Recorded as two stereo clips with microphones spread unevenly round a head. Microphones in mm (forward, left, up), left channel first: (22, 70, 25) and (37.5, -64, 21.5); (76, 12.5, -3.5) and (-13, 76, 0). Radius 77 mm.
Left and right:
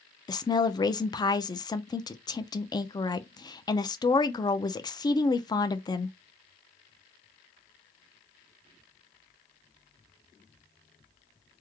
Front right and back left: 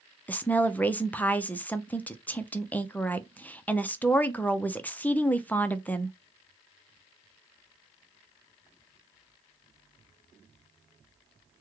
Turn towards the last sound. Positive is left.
turn(degrees=40)